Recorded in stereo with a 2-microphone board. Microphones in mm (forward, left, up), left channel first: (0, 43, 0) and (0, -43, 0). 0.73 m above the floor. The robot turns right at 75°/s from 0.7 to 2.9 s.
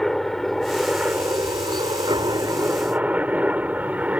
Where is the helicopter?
175° left; by 4.2 s 20° right.